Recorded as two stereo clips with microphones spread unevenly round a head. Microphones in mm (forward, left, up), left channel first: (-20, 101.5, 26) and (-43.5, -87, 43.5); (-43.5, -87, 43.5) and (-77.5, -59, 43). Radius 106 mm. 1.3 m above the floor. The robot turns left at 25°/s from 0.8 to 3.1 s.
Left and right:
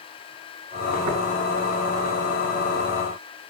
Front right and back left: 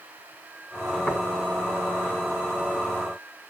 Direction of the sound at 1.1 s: 100° right.